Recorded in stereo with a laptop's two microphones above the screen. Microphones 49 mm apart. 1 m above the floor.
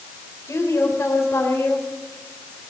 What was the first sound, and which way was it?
A woman speaking, 75° left (ahead or behind).